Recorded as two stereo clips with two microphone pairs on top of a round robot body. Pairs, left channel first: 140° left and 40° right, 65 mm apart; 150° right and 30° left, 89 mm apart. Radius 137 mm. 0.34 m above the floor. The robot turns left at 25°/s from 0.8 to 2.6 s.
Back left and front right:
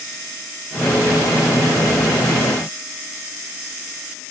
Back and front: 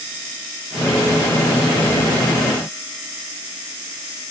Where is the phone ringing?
No phone ringing in this recording.